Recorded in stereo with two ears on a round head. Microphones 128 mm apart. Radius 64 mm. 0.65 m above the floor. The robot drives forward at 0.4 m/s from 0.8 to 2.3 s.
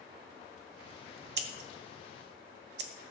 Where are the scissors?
80° right, 1.5 m; by 2.9 s 85° right, 1.5 m.